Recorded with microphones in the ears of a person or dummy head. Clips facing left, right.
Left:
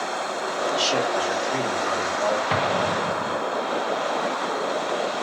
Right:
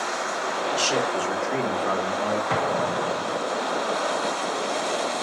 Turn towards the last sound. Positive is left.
turn(degrees=5)  # may be behind; listen again after turning